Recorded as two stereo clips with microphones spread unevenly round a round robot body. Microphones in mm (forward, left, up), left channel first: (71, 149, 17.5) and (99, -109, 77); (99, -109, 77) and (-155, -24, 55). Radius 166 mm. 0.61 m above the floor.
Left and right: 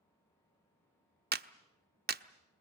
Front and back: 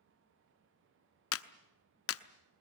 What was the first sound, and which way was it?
A clap, 25° right.